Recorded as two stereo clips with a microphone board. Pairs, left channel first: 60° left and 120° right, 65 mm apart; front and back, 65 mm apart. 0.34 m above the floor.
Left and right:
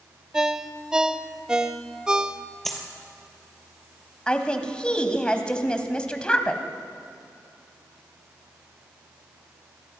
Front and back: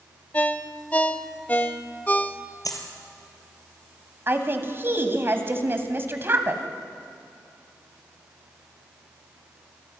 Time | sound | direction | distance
0.3 | a ringtone | 45° right | 0.7 m
2.6 | a dropped coin | 25° right | 2.5 m
4.3 | a woman speaking | 135° left | 1.9 m